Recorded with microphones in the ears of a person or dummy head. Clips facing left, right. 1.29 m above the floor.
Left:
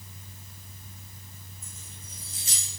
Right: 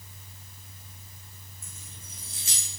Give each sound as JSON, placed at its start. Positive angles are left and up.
{"t": 1.6, "sound": "keys jangling", "side_deg": -70, "distance_m": 2.5}